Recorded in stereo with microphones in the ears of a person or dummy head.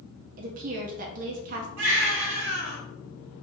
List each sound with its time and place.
0.4 s a woman speaking: 40° right (ahead or behind), 0.5 m
1.8 s a baby crying: 60° right (ahead or behind), 1.2 m